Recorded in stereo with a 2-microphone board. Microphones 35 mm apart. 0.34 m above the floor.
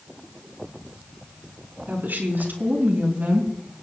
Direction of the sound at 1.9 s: 55° right (ahead or behind).